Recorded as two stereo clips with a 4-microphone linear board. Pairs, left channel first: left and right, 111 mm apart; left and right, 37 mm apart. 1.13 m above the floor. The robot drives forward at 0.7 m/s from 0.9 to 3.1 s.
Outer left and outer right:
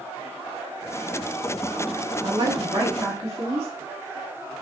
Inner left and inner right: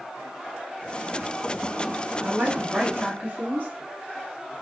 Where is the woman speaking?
40° right (ahead or behind), 1.8 m; by 3.7 s 30° right (ahead or behind), 2.5 m.